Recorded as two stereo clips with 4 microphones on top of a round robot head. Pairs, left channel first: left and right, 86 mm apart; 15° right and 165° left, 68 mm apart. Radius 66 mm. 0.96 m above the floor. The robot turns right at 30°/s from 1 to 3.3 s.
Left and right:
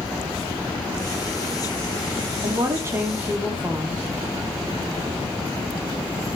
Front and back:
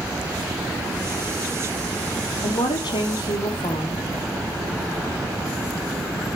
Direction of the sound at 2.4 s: 40° right.